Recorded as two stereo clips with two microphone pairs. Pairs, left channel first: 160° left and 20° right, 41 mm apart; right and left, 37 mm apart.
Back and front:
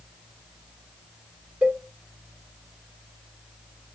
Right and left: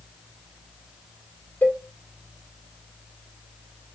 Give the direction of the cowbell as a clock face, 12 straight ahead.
2 o'clock.